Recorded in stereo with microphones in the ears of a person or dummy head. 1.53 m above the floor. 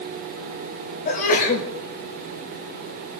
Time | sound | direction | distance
1.1 | a sneeze | 45° left (ahead or behind) | 6.5 m